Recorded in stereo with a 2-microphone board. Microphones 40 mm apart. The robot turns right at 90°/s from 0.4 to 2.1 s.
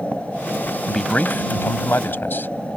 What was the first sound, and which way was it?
A man speaking, 10° left.